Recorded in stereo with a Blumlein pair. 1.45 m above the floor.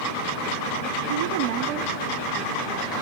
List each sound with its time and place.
1.1 s a woman speaking: 65° right, 1.0 m; by 2.9 s 15° right, 3 m